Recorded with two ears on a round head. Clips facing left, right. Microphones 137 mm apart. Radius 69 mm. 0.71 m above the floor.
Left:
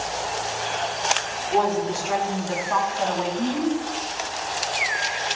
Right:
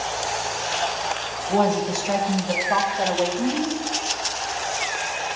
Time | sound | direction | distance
1.5 | a woman speaking | 65° right (ahead or behind) | 3 m